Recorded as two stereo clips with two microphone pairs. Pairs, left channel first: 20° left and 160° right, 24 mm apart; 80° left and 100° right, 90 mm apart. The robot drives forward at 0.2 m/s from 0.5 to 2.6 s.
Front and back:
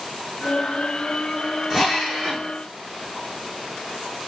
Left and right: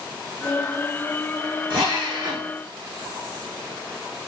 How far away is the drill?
About 4 m.